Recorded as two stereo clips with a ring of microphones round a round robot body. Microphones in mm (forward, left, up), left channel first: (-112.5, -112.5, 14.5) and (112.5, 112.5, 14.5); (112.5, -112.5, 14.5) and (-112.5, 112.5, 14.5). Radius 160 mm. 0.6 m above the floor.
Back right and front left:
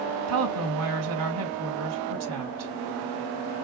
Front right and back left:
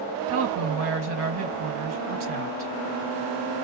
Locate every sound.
0.3 s a woman speaking: 85° left, 4.5 m